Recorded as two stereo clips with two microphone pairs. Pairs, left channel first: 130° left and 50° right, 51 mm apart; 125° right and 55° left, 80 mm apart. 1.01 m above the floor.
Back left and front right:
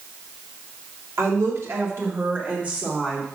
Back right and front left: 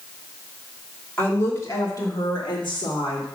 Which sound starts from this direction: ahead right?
A woman speaking, at 1.2 s.